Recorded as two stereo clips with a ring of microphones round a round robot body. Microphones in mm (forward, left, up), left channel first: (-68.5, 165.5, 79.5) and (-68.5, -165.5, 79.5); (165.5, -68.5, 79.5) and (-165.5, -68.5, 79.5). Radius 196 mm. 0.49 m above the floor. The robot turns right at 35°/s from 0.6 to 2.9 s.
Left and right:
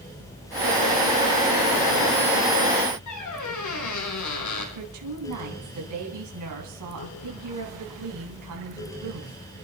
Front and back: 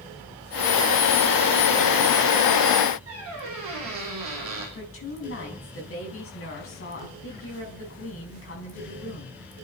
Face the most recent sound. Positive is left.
turn(degrees=-50)